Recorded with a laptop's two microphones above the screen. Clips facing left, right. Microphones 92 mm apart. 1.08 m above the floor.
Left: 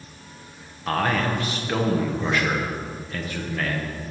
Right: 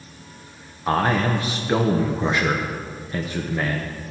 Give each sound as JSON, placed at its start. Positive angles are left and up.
{"t": 0.9, "sound": "a man speaking", "side_deg": -20, "distance_m": 0.8}